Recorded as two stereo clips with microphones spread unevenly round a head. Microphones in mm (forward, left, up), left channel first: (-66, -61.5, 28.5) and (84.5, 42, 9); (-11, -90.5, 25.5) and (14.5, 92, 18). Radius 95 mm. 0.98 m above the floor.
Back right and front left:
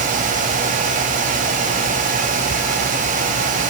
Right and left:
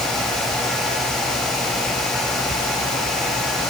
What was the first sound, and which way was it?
Only background noise.